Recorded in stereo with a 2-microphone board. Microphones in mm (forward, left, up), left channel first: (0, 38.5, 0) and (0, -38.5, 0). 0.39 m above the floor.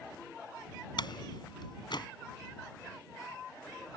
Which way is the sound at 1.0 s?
70° left (ahead or behind).